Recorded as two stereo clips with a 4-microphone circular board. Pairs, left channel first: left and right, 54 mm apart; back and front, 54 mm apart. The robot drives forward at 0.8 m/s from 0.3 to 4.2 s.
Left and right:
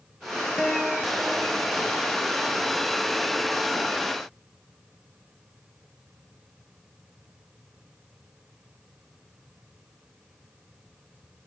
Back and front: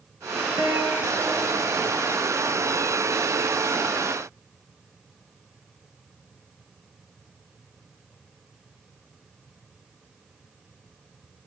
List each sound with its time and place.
0.6 s a guitar: 5° left, 2.5 m; by 2.0 s 10° left, 1.6 m